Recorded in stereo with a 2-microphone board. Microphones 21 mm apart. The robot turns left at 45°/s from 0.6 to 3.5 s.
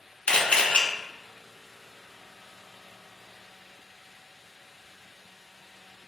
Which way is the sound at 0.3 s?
85° left.